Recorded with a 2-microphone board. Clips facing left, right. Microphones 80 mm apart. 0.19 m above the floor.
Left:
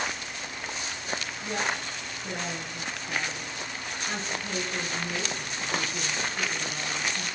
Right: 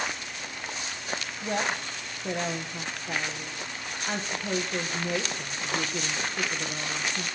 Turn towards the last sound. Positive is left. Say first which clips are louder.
# right 2 dB
turn(degrees=-50)  # may be behind; listen again after turning